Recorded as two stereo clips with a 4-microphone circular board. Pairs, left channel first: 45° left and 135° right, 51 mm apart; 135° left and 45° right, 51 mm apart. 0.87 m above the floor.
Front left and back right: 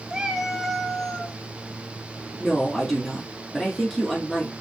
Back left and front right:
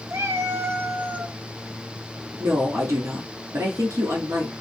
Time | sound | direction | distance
0.1 | a cat meowing | 55° right | 1.0 m
2.4 | a woman speaking | 40° right | 2 m